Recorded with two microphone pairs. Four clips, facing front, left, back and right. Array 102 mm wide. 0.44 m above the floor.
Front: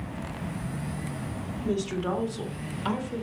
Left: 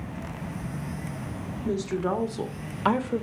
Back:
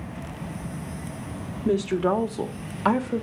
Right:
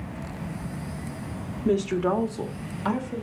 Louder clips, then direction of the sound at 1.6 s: Right 4 dB, back 7 dB; 125° right.